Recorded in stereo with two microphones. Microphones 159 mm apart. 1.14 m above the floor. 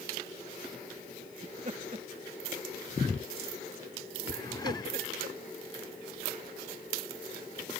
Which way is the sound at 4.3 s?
25° left (ahead or behind).